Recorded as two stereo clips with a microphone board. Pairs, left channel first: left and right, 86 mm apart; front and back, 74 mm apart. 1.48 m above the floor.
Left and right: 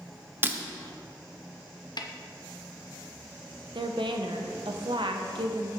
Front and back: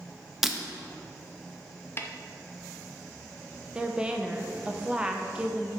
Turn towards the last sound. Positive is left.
turn(degrees=-105)